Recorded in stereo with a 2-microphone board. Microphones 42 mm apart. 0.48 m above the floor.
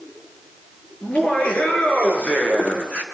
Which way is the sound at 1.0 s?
35° left (ahead or behind).